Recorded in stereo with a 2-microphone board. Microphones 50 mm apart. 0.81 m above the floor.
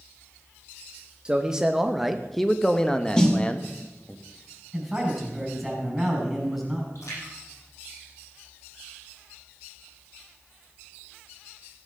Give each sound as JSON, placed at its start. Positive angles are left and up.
{"t": 1.2, "sound": "a man speaking", "side_deg": -20, "distance_m": 0.9}
{"t": 3.2, "sound": "a snare drum", "side_deg": 15, "distance_m": 1.7}
{"t": 4.7, "sound": "a man speaking", "side_deg": -5, "distance_m": 5.5}
{"t": 7.0, "sound": "a splash", "side_deg": 75, "distance_m": 8.5}